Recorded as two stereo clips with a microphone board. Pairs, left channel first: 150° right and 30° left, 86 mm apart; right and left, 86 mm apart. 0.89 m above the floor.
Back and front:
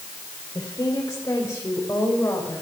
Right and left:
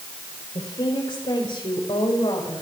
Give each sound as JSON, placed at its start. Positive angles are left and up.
{"t": 0.6, "sound": "a woman speaking", "azimuth_deg": -105, "distance_m": 4.0}